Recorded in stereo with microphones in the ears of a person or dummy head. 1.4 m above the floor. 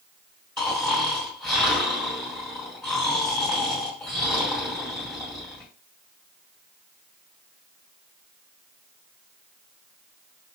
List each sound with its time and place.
0.6 s snoring: 5° left (ahead or behind), 1.7 m